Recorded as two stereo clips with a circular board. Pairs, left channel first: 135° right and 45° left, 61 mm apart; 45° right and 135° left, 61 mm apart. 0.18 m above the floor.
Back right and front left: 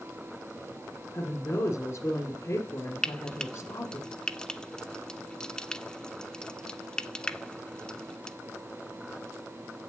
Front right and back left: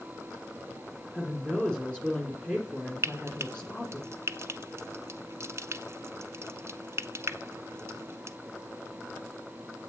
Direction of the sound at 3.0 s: 150° left.